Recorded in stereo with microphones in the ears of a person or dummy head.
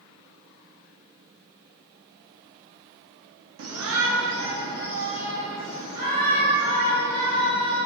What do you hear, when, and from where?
3.6 s a shout: 55° right (ahead or behind), 0.6 m; by 7.8 s 35° right (ahead or behind), 4.5 m